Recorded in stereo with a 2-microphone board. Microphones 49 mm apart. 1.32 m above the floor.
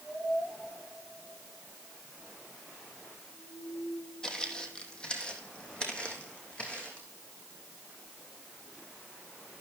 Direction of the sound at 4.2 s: 15° left (ahead or behind).